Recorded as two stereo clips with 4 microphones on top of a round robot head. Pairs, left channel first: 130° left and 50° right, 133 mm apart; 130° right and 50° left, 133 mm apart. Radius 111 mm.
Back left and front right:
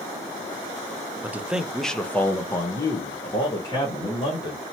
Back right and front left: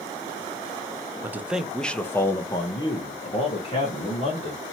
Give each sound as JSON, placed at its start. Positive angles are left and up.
{"t": 1.2, "sound": "a man speaking", "azimuth_deg": 5, "distance_m": 0.7}